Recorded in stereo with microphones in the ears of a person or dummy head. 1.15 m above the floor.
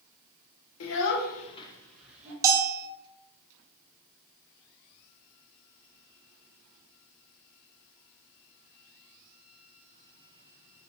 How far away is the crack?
No crack in this recording.